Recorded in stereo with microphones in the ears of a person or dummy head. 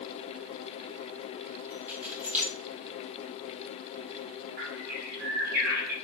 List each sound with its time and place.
1.7 s keys jangling: 10° right (ahead or behind), 4.5 m
4.6 s a bird: 55° right (ahead or behind), 4.5 m